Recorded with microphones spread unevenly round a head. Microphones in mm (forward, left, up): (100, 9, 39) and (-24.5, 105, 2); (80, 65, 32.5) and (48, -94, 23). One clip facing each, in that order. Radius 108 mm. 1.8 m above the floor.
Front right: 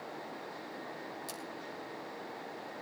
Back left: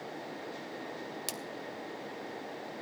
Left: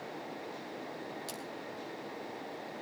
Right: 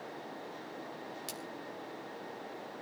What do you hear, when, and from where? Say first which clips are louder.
1.3 s a splash: back left 3 dB, left 2 dB; 175° right, 1.2 m